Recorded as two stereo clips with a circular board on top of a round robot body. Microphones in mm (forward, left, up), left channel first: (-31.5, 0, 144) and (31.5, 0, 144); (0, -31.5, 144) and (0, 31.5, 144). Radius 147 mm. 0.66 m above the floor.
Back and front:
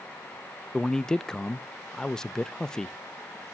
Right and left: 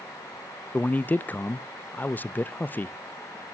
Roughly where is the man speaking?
Right.